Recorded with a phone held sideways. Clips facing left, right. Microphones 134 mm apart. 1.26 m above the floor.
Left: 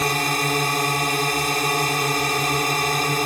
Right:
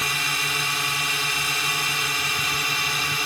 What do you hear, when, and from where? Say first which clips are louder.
0.0 s a drone: left 8 dB; 45° left (ahead or behind)